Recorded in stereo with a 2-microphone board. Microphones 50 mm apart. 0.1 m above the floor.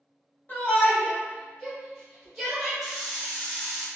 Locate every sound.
0.5 s a shout: 35° left (ahead or behind), 1.3 m; by 2.7 s 5° left (ahead or behind), 1.9 m
2.8 s a hiss: 5° right (ahead or behind), 0.8 m